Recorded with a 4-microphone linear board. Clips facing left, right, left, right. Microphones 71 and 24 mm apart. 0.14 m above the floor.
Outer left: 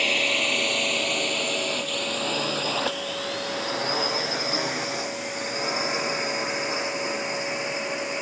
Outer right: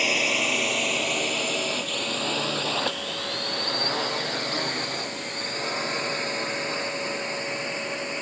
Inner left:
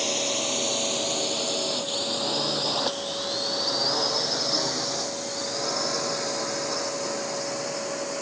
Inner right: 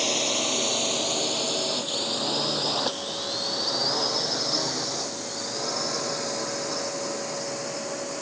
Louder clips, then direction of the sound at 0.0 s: Even, inner right 1 dB; 5° right (ahead or behind).